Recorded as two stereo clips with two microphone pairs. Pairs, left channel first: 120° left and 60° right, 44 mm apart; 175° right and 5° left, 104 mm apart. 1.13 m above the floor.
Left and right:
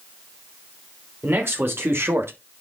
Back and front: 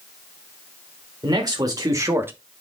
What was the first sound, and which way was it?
A man speaking, 45° right.